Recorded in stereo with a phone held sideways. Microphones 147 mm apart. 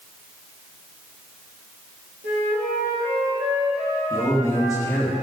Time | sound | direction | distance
2.2 | a flute | 85° right | 2.5 m
4.1 | a man speaking | 20° left (ahead or behind) | 1.7 m